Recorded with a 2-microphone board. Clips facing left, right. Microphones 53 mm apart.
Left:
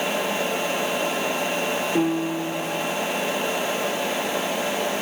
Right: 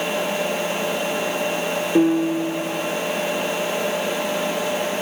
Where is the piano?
15° right (ahead or behind), 5 m.